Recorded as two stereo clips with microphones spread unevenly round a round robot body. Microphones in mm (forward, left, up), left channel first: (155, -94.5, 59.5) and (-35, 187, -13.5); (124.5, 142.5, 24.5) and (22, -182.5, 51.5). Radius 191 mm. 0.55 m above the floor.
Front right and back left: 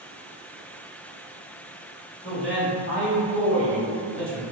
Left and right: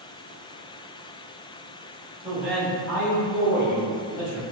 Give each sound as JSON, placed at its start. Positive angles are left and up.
{"t": 2.2, "sound": "a man speaking", "azimuth_deg": -25, "distance_m": 1.3}